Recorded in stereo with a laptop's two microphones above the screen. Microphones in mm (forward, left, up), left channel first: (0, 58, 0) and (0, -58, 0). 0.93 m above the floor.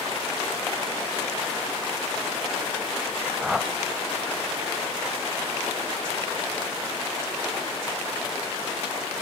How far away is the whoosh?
About 1.0 m.